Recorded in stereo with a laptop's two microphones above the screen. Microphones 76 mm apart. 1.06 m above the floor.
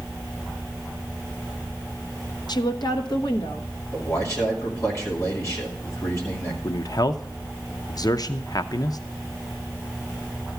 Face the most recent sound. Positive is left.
turn(degrees=55)  # may be behind; listen again after turning